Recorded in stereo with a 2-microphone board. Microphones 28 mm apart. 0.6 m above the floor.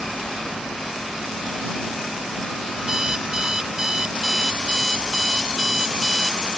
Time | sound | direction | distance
2.8 | an alarm clock | 20° right (ahead or behind) | ?